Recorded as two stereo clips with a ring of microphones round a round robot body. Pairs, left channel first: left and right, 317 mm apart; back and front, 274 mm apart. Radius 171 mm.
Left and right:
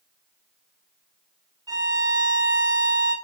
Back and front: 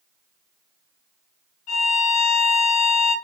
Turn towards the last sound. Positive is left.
turn(degrees=-165)